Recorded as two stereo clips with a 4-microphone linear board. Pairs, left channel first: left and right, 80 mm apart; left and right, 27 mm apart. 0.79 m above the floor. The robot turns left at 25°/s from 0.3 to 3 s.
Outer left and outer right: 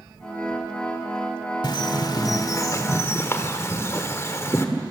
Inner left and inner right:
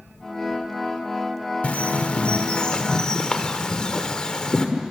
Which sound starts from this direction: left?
A bird, at 1.6 s.